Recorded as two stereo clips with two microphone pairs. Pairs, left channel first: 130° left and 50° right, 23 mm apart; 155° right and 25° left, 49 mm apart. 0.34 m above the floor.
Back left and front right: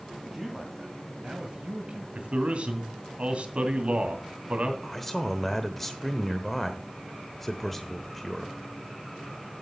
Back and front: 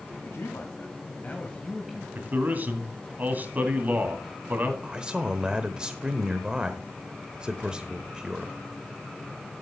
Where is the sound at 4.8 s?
75° left, 0.9 m.